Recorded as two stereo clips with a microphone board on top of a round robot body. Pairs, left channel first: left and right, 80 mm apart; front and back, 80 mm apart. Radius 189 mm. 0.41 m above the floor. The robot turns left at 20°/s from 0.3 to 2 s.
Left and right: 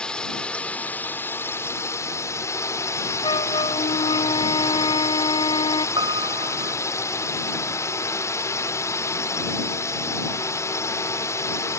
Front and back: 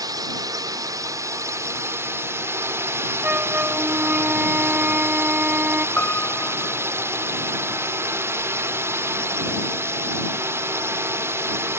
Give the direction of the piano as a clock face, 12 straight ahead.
2 o'clock.